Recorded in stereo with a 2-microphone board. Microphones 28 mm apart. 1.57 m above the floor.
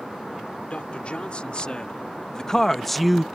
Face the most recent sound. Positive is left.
turn(degrees=-10)  # may be behind; listen again after turning